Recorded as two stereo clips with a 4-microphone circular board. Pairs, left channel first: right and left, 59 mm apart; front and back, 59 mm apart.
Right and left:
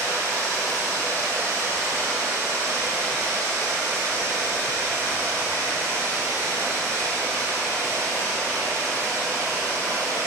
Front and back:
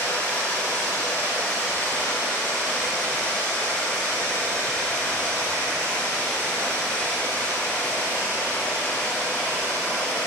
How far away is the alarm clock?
No alarm clock in this recording.